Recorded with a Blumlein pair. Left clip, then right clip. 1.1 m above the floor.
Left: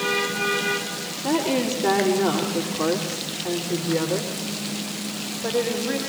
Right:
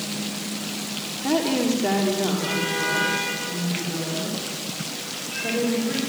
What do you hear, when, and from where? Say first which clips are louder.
1.2 s a woman speaking: even; 5° right, 3 m; by 6.0 s 65° left, 6 m